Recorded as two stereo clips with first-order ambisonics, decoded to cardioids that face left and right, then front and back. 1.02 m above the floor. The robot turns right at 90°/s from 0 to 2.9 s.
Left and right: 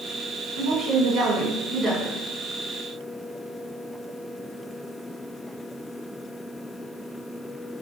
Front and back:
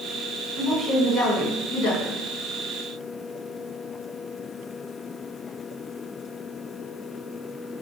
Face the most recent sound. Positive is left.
turn(degrees=95)